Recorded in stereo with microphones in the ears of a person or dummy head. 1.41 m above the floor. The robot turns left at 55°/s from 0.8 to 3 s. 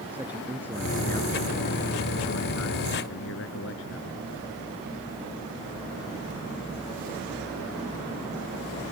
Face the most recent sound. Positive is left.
turn(degrees=70)